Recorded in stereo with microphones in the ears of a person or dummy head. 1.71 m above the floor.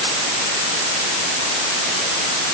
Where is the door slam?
No door slam in this recording.